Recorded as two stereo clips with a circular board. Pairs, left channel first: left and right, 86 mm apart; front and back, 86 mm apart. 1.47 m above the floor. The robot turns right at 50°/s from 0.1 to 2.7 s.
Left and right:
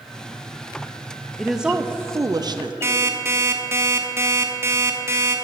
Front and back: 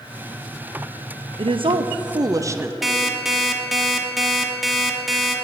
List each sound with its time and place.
1.4 s a woman speaking: straight behind, 0.6 m; by 2.7 s 115° right, 0.6 m
2.8 s an alarm clock: 95° right, 1.0 m